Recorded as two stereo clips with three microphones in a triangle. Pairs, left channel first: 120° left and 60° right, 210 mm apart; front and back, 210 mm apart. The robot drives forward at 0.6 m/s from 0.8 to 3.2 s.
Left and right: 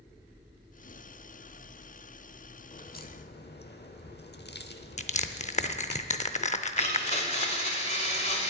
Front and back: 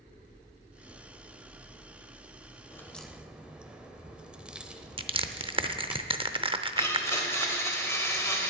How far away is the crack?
About 0.9 m.